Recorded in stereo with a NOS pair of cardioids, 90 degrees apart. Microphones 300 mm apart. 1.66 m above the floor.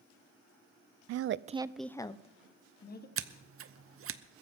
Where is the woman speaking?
60° right, 0.6 m; by 3.1 s 30° left, 1.6 m.